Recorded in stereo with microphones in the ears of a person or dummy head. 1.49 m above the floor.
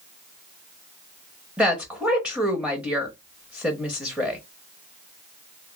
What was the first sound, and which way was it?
A woman speaking, centre (ahead or behind).